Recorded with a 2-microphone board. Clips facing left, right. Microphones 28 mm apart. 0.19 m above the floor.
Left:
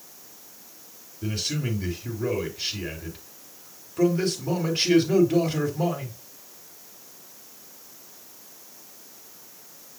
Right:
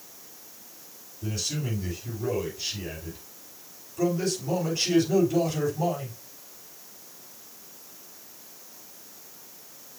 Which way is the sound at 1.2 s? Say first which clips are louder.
Left 3 dB; 65° left (ahead or behind).